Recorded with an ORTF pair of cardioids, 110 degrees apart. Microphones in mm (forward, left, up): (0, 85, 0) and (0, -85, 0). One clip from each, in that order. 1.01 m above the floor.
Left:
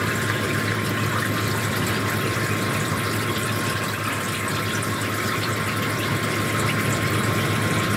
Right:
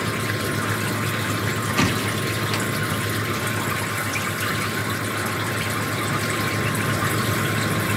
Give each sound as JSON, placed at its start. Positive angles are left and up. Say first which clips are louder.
{"t": 0.0, "sound": "a machine running", "louder": "left 1 dB", "azimuth_deg": 5}